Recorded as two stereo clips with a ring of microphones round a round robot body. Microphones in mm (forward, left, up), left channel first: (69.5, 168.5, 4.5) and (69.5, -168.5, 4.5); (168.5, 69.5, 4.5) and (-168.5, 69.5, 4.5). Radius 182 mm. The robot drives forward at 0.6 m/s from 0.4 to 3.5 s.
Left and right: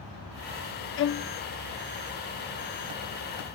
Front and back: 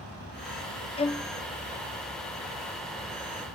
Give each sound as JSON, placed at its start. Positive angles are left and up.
{"t": 1.0, "sound": "a violin", "azimuth_deg": 60}